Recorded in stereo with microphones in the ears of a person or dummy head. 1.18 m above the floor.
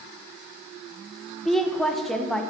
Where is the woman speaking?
Centre (ahead or behind), 0.9 m.